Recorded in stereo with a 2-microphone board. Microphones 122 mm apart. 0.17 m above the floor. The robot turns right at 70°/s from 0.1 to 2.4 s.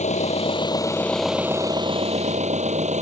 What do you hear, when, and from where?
0.0 s an engine running: 100° left; by 3.0 s 100° right